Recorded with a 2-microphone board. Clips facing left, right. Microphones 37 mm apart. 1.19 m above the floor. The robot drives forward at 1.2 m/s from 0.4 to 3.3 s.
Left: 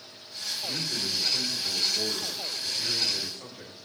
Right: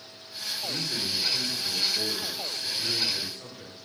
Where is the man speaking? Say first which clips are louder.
Right 1 dB; centre (ahead or behind), 5 m.